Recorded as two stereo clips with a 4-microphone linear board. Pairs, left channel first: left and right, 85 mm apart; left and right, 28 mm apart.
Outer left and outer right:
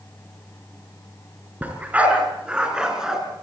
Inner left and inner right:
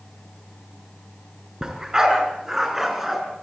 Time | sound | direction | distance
1.6 | a dog barking | 20° right (ahead or behind) | 5 m